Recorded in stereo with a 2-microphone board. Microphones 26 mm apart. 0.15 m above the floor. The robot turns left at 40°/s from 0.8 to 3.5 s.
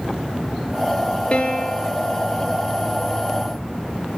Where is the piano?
40° left (ahead or behind), 1.1 m; by 1.9 s 55° left (ahead or behind), 1.1 m.